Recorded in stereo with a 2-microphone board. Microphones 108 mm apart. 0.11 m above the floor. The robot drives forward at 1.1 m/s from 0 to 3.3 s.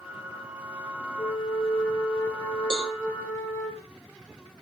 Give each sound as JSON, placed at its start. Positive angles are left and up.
{"t": 1.2, "sound": "a flute", "side_deg": 45, "distance_m": 2.5}
{"t": 2.7, "sound": "a cowbell", "side_deg": -55, "distance_m": 4.0}